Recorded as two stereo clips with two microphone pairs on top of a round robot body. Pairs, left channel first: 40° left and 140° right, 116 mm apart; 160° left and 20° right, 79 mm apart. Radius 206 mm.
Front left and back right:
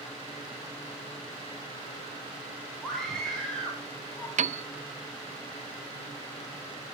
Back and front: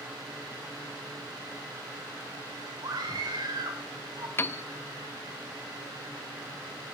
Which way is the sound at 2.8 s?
50° right.